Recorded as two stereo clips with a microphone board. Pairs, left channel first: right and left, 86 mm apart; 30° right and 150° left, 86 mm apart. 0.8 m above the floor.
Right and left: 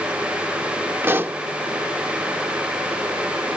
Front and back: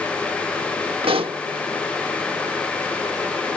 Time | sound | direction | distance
1.0 | a pop | 155° left | ?